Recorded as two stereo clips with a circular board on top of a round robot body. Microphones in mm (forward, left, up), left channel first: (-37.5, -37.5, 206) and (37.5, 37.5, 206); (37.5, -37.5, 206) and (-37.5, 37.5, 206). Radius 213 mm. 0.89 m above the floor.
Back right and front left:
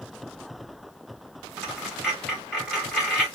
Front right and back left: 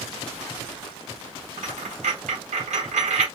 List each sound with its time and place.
1.6 s a dropped coin: 130° left, 1.8 m